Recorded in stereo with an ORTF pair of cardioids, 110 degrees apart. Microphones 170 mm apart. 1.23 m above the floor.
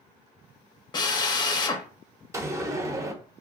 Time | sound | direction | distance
0.9 | a drill | 25° left | 0.6 m
2.3 | a door slam | 20° right | 0.7 m